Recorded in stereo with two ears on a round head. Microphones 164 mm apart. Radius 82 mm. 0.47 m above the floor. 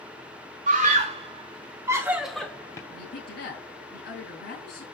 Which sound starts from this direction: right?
A scream, at 0.7 s.